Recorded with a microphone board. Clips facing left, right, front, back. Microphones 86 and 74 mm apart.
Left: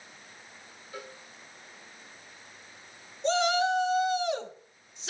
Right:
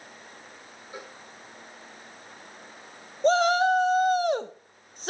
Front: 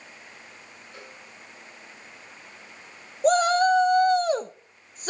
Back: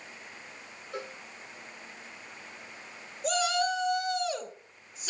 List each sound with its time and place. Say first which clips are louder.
0.9 s a cowbell: right 1 dB, back 8 dB; 160° right, 3.5 m
3.2 s a shout: right 5 dB, front 9 dB; 45° right, 1.4 m